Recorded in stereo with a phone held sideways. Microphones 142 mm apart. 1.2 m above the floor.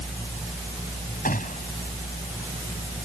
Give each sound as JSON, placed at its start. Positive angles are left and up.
{"t": 1.2, "sound": "a gunshot", "side_deg": 70}